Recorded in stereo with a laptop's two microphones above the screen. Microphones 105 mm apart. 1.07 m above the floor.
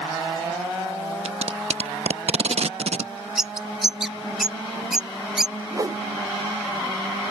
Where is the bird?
5° right (ahead or behind).